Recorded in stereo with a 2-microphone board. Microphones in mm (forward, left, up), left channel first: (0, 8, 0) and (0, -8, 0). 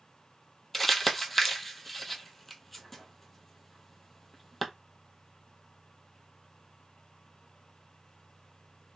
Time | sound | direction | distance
0.7 | crumpling | 10° left (ahead or behind) | 0.7 m